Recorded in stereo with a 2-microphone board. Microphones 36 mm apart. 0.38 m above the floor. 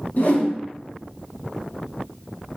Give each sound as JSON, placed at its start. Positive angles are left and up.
{"t": 0.2, "sound": "a whoosh", "side_deg": 55, "distance_m": 0.6}